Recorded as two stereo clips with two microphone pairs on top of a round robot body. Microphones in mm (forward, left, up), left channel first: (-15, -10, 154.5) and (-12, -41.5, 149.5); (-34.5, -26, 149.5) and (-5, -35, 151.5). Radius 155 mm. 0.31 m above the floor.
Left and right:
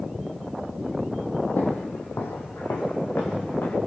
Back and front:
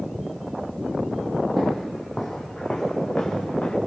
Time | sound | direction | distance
1.6 | footsteps | 70° left | 1.4 m